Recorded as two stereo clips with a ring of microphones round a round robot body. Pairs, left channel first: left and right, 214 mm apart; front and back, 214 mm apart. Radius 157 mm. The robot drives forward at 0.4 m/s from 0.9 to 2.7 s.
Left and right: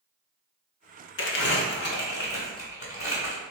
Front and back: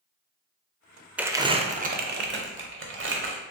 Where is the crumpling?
95° left, 0.5 m; by 3.4 s 150° left, 0.8 m.